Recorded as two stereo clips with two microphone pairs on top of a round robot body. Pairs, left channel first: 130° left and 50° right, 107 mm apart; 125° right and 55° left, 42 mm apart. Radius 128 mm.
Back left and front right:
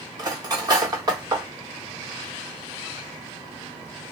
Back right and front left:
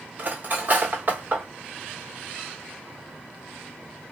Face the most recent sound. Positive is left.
turn(degrees=10)